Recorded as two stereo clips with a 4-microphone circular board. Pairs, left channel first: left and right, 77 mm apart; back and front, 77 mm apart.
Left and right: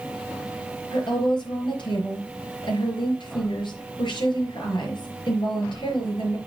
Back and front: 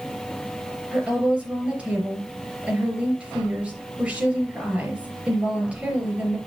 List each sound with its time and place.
0.9 s a woman speaking: 75° left, 4.5 m